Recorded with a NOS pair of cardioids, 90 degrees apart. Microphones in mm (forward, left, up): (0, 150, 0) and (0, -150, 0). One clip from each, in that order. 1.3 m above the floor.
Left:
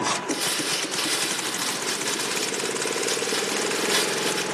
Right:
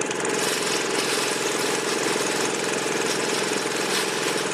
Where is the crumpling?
30° left, 5 m.